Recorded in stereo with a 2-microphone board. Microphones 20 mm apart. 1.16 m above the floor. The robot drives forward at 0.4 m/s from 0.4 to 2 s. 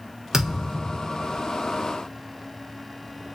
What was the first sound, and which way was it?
A thud, 25° right (ahead or behind).